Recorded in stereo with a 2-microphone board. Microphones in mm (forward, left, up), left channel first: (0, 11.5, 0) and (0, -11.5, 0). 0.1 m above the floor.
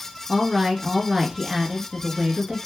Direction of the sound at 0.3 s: 20° right (ahead or behind).